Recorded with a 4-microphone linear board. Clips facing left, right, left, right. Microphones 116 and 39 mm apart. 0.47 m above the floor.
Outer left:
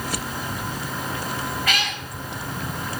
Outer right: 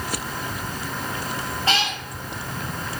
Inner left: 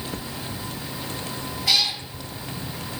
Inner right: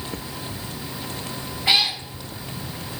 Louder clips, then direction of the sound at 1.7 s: Outer right 7 dB, inner right 3 dB; 30° right (ahead or behind).